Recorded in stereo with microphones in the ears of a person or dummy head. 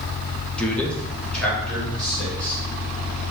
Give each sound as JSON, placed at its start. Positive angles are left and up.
{"t": 0.6, "sound": "a man speaking", "side_deg": 10, "distance_m": 0.5}